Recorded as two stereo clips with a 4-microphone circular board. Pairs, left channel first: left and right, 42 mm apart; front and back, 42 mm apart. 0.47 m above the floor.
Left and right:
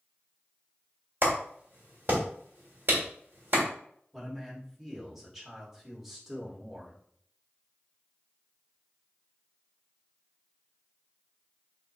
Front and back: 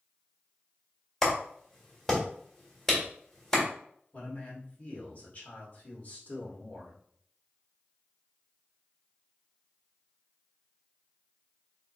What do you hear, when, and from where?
1.2 s a clap: 75° right, 1.7 m
4.1 s a man speaking: 10° right, 1.6 m